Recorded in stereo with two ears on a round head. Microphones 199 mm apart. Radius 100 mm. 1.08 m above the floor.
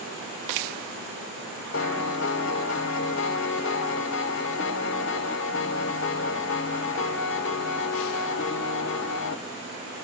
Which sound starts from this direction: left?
A piano, at 1.7 s.